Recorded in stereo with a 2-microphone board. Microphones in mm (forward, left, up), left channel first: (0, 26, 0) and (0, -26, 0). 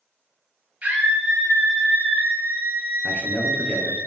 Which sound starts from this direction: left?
A man speaking, at 3.0 s.